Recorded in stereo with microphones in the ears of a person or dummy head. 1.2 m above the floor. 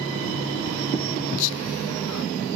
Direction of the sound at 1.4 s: 80° left.